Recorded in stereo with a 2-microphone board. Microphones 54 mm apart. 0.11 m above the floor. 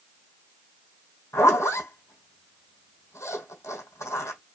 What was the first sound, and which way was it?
A zipper, 75° left (ahead or behind).